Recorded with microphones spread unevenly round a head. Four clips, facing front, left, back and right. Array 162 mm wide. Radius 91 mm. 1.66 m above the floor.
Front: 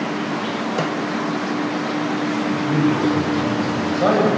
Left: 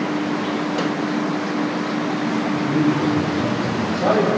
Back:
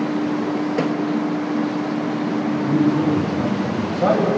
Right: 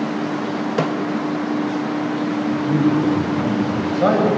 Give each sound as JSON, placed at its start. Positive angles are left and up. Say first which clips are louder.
{"t": 0.8, "sound": "a snare drum", "louder": "right 2 dB, back 1 dB", "azimuth_deg": -105, "distance_m": 0.9}
{"t": 2.5, "sound": "a man speaking", "louder": "right 2 dB, back 2 dB", "azimuth_deg": -55, "distance_m": 9.5}